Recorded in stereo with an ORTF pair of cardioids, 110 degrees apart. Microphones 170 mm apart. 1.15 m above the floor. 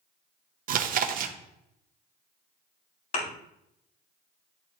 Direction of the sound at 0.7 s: 55° right.